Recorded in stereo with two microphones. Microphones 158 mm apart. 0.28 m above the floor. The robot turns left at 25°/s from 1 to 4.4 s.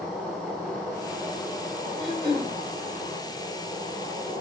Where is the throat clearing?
40° left (ahead or behind), 4 m; by 2.5 s 55° left (ahead or behind), 4 m.